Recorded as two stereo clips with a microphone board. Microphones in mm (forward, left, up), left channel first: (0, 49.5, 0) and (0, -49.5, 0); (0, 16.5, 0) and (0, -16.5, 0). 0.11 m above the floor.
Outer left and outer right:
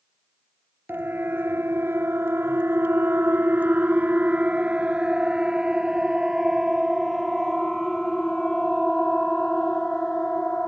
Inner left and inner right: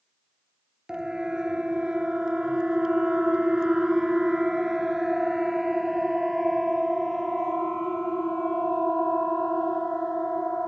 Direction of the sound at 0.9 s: 20° right (ahead or behind).